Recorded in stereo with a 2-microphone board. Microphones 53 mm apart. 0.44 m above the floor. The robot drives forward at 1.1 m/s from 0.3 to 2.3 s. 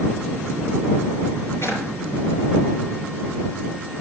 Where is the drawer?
55° left (ahead or behind), 4.5 m; by 1.8 s 60° left (ahead or behind), 4.5 m.